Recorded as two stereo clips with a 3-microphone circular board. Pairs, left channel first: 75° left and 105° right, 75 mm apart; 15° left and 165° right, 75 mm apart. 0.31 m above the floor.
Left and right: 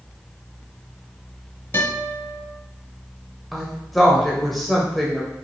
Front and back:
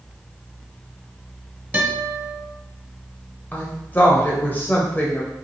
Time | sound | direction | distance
1.7 | a guitar | 130° left | 1.7 m
3.5 | a woman speaking | 15° right | 0.9 m